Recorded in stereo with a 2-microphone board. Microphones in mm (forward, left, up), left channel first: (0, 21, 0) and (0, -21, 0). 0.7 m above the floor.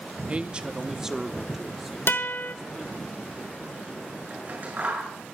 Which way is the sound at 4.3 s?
45° right (ahead or behind).